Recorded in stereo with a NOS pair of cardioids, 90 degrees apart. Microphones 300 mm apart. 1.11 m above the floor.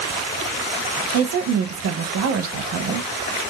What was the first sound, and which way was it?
A woman speaking, 55° right.